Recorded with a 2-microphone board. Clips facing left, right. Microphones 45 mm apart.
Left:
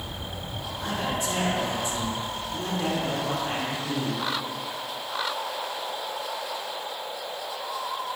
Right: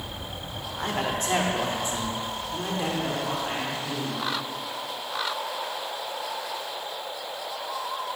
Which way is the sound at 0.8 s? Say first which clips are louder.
Right 1 dB; 55° right (ahead or behind).